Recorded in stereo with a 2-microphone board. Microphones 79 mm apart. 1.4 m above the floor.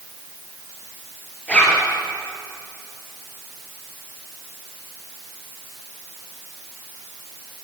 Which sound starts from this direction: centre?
A zipper, at 1.5 s.